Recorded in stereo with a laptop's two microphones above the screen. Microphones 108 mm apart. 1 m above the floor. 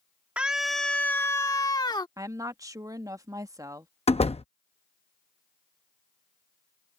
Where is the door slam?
70° left (ahead or behind).